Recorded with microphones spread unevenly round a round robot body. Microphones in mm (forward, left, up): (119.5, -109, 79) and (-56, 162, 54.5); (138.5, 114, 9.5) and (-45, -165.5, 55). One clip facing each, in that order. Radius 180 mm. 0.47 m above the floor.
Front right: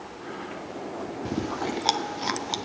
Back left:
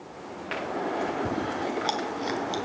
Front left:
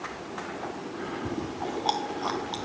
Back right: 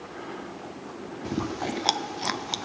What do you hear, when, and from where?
1.2 s chewing: 115° right, 0.6 m